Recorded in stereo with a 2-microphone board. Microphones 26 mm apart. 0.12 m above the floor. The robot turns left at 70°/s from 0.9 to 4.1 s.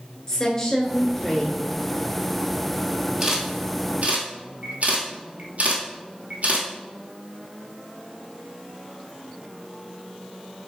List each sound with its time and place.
0.3 s a woman speaking: 35° left, 1.4 m; by 1.6 s 20° right, 1.4 m
3.2 s a camera shutter: 10° right (ahead or behind), 1.2 m; by 6.7 s 60° right (ahead or behind), 1.2 m